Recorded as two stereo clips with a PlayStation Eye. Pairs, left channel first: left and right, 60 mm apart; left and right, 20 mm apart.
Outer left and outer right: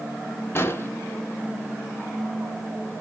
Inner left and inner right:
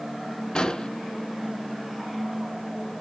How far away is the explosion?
About 0.6 m.